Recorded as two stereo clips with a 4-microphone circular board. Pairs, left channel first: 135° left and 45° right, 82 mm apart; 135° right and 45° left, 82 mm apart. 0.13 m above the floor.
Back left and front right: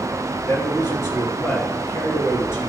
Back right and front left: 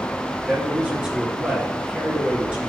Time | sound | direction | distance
0.5 | a man speaking | 115° left | 2.5 m